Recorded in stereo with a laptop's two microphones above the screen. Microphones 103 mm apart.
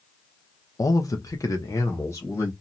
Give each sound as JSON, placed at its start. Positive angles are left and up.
{"t": 0.8, "sound": "a man speaking", "side_deg": 30, "distance_m": 0.6}